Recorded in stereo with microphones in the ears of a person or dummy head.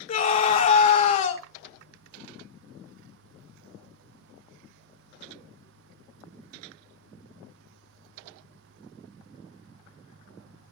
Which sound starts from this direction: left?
A scream, at 0.1 s.